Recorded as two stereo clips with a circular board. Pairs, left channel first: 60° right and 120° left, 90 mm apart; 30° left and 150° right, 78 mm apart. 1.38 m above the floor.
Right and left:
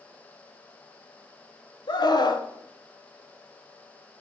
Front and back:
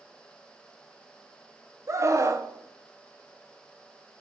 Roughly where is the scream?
Right.